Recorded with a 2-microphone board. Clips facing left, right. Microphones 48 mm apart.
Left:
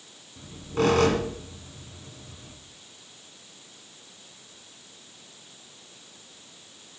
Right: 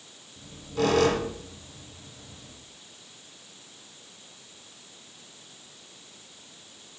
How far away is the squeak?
About 1.7 m.